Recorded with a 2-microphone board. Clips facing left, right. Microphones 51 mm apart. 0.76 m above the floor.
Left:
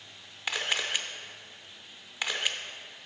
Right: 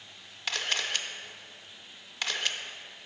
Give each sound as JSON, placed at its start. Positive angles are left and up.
{"t": 0.5, "sound": "a camera shutter", "side_deg": 15, "distance_m": 0.6}